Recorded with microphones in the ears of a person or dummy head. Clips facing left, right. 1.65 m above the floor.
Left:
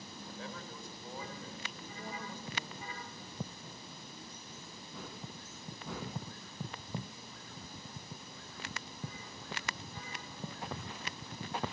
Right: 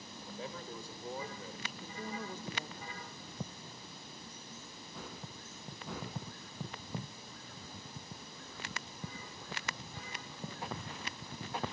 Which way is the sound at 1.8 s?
50° right (ahead or behind).